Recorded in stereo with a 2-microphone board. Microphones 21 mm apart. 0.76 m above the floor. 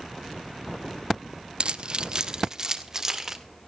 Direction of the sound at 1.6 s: 50° right (ahead or behind).